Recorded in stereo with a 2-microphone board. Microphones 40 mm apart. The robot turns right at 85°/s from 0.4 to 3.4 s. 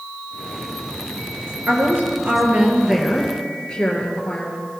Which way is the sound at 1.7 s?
125° right.